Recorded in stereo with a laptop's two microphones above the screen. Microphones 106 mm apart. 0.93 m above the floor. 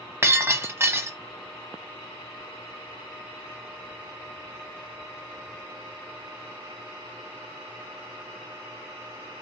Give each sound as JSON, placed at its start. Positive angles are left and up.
{"t": 0.2, "sound": "breaking glass", "side_deg": -25, "distance_m": 0.9}